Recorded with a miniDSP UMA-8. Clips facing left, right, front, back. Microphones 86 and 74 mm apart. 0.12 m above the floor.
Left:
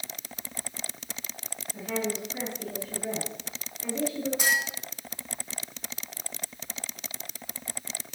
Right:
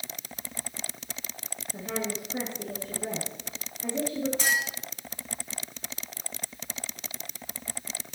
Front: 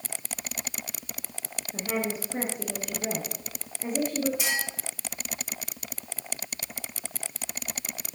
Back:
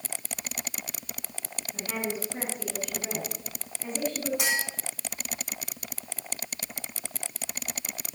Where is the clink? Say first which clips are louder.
Left 3 dB, back 1 dB; 165° left, 4 m.